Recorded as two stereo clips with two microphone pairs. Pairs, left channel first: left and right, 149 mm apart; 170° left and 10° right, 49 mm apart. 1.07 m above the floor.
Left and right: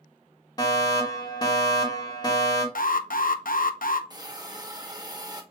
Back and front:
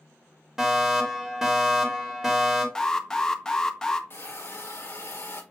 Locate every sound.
0.6 s a fire alarm: 65° left, 1.6 m
2.8 s an alarm: 95° left, 0.6 m
4.1 s a hiss: 155° right, 0.9 m